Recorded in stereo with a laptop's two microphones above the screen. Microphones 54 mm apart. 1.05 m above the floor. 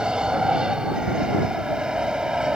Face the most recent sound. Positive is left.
turn(degrees=-15)  # may be behind; listen again after turning